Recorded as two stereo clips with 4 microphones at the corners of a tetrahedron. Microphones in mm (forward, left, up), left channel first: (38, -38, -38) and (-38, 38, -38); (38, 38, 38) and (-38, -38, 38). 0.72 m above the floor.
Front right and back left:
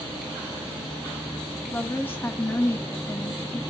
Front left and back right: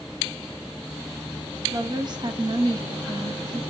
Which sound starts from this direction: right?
A woman speaking, at 1.7 s.